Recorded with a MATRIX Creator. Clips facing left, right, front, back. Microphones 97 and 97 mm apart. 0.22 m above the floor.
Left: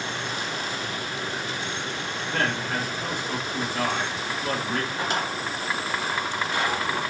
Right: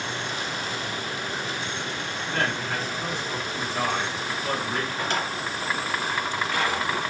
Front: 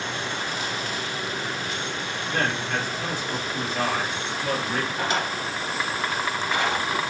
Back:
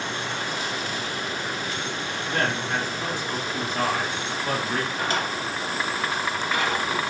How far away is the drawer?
About 0.9 m.